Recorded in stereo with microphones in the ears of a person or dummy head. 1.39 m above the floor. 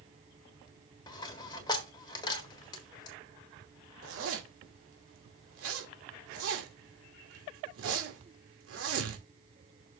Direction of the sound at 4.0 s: 90° right.